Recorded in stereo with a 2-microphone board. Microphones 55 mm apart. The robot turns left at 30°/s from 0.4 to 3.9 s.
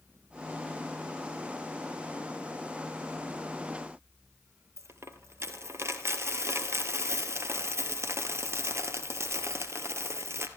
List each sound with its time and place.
4.8 s a dropped coin: 55° right (ahead or behind), 2.0 m